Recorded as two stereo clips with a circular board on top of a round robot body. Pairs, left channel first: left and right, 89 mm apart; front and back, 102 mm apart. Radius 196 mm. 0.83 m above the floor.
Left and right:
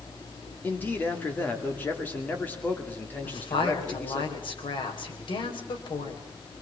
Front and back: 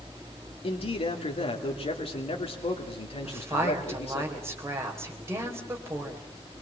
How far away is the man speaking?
About 2.5 m.